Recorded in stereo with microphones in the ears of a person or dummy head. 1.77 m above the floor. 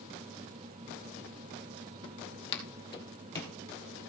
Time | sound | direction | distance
2.0 | footsteps | 35° left (ahead or behind) | 2.5 m